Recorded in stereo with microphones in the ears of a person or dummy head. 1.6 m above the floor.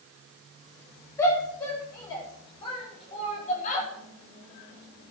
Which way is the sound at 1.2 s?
20° left (ahead or behind).